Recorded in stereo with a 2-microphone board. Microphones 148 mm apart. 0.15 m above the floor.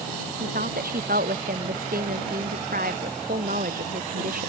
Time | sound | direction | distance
0.4 | a woman speaking | 75° right (ahead or behind) | ?